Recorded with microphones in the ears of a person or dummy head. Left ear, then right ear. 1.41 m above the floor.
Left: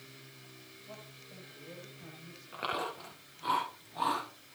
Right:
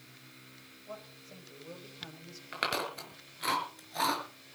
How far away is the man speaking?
About 8 m.